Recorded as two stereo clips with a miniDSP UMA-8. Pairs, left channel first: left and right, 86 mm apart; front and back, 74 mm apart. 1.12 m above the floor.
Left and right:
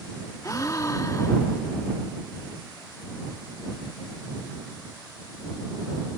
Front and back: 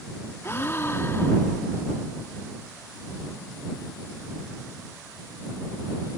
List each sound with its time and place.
0.4 s a gasp: 50° left